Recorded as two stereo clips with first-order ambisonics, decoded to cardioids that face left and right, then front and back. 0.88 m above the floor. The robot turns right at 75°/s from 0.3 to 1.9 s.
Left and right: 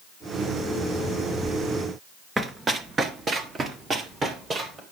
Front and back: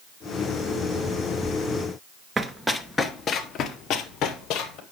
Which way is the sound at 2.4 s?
140° right.